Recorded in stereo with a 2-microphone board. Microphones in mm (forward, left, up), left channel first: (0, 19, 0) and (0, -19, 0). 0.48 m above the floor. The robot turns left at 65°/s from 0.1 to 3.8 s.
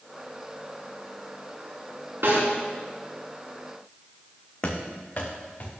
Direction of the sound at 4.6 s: 30° left (ahead or behind).